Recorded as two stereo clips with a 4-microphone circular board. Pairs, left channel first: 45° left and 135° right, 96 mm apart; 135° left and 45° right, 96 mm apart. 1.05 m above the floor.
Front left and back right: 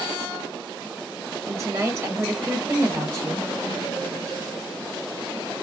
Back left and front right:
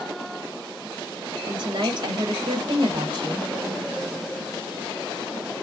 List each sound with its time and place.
1.5 s a woman speaking: 75° right, 1.2 m